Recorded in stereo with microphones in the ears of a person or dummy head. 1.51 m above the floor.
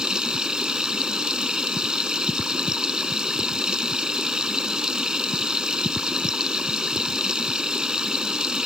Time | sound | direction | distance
0.0 | running water | centre (ahead or behind) | ?